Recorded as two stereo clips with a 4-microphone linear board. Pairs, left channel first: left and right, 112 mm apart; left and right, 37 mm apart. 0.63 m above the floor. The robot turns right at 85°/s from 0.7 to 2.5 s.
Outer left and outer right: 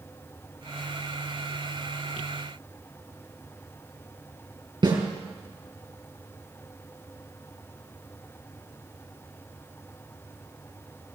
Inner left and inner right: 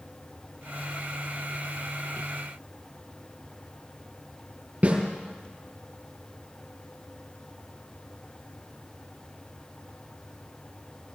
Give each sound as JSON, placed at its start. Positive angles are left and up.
{"t": 4.8, "sound": "a snare drum", "side_deg": -45, "distance_m": 4.5}